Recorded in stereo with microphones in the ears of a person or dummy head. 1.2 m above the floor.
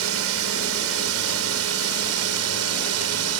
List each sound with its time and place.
0.0 s a drone: 65° right (ahead or behind); by 3.4 s 75° right (ahead or behind)